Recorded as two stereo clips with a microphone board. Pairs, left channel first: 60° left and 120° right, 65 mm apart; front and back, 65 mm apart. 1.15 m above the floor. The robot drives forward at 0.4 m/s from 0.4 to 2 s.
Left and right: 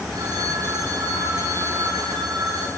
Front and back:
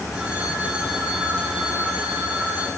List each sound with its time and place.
0.1 s a phone ringing: 105° right, 7 m; by 2.7 s 110° right, 7.5 m